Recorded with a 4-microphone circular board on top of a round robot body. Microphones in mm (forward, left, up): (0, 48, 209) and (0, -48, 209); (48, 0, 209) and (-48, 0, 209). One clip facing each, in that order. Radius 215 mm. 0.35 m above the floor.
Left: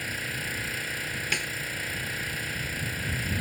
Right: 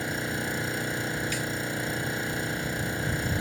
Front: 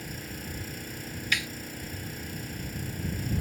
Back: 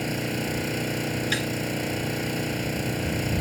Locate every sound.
0.0 s an engine running: 155° right
1.3 s a snare drum: 120° left